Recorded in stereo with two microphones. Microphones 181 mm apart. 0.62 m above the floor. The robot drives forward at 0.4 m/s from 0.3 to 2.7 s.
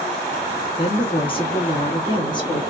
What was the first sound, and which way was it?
A woman speaking, 30° left (ahead or behind).